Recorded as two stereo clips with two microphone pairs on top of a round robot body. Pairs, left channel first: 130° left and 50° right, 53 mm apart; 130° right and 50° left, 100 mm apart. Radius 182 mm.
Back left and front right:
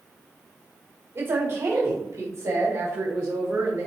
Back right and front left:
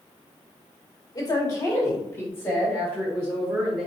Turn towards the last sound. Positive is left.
turn(degrees=-45)